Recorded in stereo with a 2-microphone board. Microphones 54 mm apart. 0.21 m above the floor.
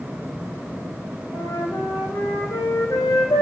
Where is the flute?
80° left, 6 m.